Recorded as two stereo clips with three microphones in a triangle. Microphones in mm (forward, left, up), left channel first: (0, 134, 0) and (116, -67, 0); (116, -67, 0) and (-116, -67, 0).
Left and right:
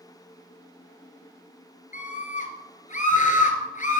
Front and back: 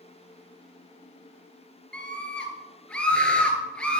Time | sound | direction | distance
1.9 | a scream | 85° left | 1.8 m